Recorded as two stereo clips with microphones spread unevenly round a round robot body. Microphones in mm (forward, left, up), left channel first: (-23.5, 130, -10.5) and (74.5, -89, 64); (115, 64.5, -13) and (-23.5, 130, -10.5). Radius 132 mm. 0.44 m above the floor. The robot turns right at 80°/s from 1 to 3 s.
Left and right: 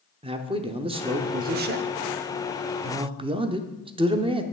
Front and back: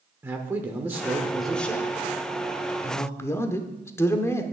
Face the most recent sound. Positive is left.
turn(degrees=15)